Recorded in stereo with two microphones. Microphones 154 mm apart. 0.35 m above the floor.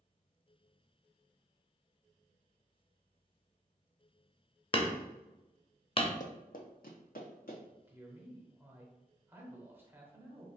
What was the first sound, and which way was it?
Hammering, 35° left (ahead or behind).